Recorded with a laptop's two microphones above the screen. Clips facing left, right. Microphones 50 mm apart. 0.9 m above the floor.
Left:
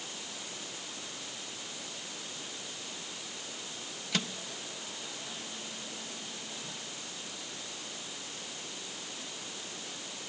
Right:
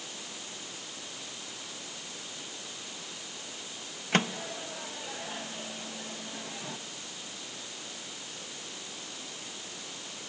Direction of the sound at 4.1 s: 40° right (ahead or behind).